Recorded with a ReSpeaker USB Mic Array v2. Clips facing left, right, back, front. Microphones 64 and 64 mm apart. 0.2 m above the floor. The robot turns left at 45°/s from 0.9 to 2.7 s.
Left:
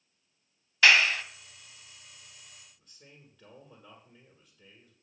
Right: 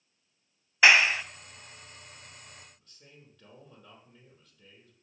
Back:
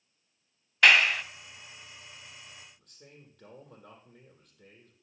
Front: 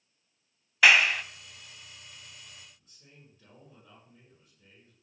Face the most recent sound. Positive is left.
turn(degrees=175)